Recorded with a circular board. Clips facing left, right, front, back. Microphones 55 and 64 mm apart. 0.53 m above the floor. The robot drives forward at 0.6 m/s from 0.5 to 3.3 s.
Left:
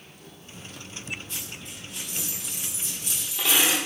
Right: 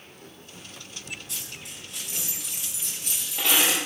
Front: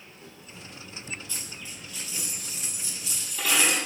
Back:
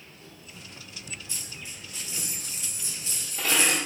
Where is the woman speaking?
I don't hear a woman speaking.